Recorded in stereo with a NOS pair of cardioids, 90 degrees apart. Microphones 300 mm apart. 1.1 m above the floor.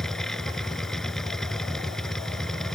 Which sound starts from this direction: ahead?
A machine running, at 0.0 s.